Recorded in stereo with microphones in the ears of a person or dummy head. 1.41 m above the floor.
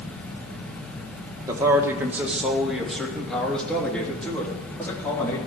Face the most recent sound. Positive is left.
turn(degrees=15)  # may be behind; listen again after turning